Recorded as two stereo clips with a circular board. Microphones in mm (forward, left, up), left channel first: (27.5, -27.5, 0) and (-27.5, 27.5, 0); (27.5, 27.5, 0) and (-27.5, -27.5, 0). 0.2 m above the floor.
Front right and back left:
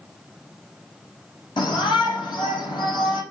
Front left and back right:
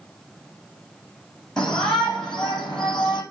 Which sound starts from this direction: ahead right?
A shout, at 1.6 s.